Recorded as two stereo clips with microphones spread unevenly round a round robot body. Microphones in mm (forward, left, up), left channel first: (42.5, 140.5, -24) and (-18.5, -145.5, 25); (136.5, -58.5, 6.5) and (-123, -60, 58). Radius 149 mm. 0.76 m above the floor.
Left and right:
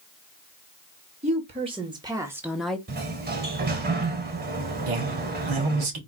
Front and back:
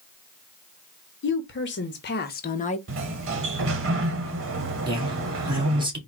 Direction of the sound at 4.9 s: 105° right.